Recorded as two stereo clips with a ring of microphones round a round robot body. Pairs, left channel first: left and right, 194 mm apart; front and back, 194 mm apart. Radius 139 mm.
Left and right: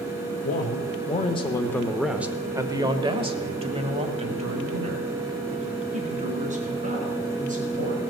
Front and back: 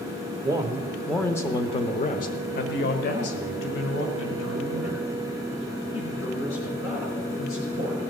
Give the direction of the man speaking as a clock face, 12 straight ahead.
8 o'clock.